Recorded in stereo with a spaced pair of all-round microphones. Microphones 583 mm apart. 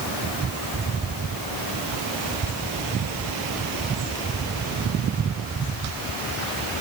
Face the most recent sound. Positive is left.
No sound to turn to.